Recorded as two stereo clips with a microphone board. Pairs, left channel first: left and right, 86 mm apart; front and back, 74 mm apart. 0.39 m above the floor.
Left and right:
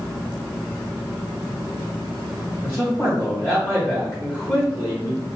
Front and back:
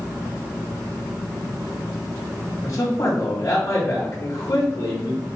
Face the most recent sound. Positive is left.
turn(degrees=35)